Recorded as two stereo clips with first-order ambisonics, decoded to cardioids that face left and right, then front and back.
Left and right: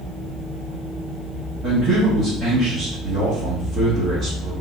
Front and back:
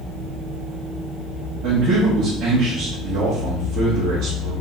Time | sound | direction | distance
1.6 | a man speaking | 150° right | 1.3 m